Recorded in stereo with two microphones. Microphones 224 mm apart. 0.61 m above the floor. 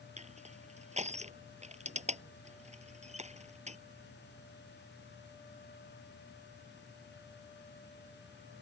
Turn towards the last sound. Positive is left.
turn(degrees=-30)  # may be behind; listen again after turning